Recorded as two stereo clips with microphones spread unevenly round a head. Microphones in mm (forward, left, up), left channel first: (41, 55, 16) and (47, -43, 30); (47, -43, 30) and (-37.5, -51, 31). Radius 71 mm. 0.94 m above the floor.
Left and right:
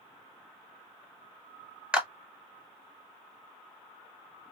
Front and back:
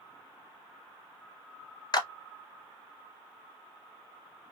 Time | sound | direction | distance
1.9 | a clap | straight ahead | 0.8 m